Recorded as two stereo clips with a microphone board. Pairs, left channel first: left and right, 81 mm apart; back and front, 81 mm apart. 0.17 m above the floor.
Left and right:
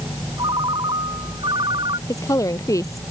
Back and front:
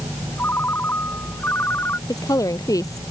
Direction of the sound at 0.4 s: 115° right.